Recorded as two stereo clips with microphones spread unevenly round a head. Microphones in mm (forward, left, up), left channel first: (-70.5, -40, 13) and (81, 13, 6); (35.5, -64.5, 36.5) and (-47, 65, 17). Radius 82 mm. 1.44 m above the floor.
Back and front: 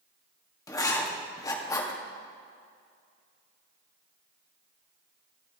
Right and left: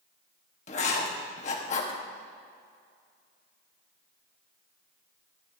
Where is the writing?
95° right, 1.4 m.